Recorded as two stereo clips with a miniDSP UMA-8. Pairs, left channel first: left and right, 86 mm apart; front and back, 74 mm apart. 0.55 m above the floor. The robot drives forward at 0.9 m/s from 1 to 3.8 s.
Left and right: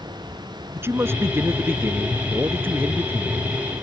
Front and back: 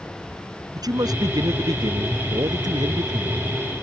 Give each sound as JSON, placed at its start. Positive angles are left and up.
{"t": 0.7, "sound": "a man speaking", "azimuth_deg": -150}